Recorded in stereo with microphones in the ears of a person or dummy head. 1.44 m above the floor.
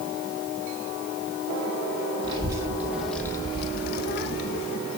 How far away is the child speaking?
About 1.1 m.